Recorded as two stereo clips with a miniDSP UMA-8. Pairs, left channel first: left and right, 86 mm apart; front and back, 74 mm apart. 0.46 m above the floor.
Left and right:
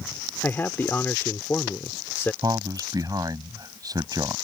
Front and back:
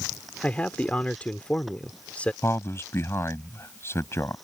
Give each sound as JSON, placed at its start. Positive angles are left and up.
{"t": 0.4, "sound": "a man speaking", "azimuth_deg": 55}
{"t": 2.4, "sound": "a man speaking", "azimuth_deg": -50}